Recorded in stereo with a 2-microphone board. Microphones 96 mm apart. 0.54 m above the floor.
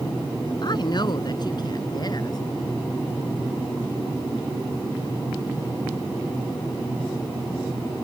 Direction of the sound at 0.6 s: 50° left (ahead or behind).